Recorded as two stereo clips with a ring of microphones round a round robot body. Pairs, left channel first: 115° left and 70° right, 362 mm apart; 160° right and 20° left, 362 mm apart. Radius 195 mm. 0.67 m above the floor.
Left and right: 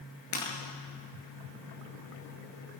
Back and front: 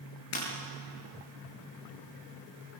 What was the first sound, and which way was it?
Breaking glass, 155° left.